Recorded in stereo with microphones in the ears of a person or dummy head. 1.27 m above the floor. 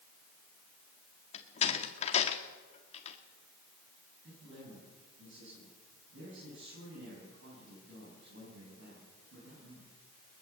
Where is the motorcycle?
No motorcycle in this recording.